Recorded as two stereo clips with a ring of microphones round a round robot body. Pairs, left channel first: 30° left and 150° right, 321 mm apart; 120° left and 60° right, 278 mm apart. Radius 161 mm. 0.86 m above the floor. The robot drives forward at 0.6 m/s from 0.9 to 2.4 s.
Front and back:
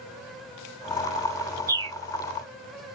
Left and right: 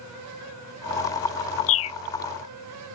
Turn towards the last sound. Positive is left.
turn(degrees=155)